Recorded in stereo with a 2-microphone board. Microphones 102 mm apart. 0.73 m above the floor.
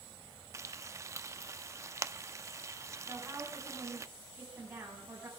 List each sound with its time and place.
0.5 s frying: 30° right (ahead or behind), 0.6 m
3.1 s a woman speaking: 15° right (ahead or behind), 5 m